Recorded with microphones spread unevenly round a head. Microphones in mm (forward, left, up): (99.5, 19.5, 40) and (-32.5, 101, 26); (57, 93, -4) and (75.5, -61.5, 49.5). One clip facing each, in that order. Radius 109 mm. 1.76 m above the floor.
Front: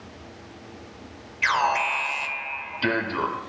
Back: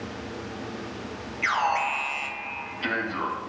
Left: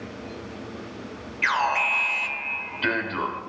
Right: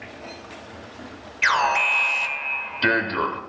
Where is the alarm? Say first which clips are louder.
Front 2 dB, right 3 dB; 55° right, 0.9 m.